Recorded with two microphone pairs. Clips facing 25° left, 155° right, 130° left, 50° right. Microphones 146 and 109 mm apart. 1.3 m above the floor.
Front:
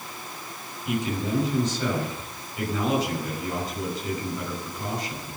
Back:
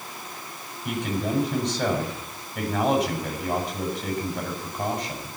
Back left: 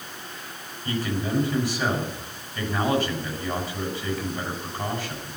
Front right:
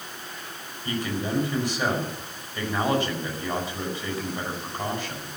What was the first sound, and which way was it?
A man speaking, 125° right.